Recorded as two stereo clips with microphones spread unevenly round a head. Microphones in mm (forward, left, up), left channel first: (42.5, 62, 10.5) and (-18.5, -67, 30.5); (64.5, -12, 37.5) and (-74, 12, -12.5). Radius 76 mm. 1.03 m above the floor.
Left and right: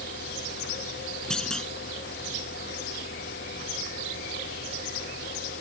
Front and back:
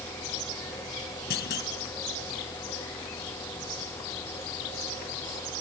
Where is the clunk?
20° right.